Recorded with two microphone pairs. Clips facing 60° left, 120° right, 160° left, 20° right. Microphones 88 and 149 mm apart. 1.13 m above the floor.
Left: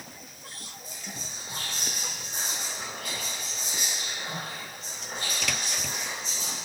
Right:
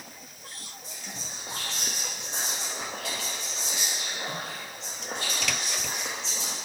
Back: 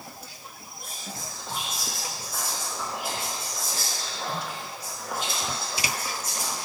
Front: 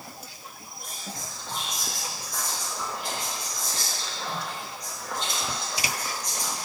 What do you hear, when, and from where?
0.8 s whispering: 120° right, 1.2 m